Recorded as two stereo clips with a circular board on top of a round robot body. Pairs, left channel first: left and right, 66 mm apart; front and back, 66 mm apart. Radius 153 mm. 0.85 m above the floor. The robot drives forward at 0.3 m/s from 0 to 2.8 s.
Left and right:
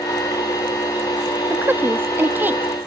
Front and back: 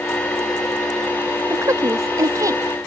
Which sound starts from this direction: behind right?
A woman speaking, at 1.5 s.